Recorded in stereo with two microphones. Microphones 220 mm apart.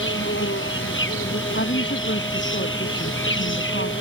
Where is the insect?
60° left (ahead or behind).